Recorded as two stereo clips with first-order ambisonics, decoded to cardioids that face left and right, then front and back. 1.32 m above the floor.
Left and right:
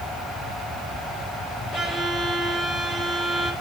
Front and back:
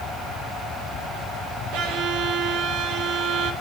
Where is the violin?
155° left, 3.5 m.